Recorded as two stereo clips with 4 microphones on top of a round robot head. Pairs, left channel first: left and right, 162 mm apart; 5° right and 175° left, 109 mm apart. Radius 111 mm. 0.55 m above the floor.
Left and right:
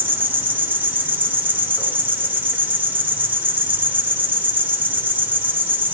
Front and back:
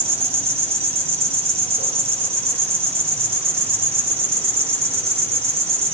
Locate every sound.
0.0 s an insect: 170° right, 2.5 m